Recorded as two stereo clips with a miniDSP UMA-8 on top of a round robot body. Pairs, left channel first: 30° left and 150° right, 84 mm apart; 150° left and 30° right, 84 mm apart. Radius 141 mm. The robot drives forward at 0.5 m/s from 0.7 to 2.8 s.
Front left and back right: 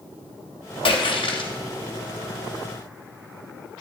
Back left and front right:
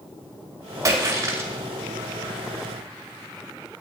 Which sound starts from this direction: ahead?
A splash, at 0.8 s.